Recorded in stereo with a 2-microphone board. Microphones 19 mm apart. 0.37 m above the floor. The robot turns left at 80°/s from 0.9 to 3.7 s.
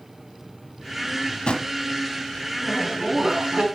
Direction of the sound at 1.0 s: 30° left (ahead or behind).